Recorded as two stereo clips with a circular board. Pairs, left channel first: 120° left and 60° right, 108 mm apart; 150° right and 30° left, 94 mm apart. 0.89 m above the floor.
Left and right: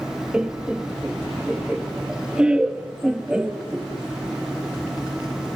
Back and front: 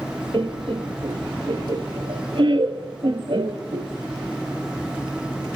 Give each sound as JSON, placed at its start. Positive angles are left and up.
{"t": 0.3, "sound": "laughter", "azimuth_deg": 20, "distance_m": 1.4}